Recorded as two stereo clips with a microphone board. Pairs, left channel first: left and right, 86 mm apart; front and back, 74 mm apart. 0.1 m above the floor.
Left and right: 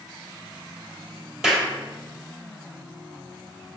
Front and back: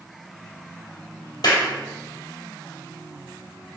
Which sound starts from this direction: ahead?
A clap, at 1.4 s.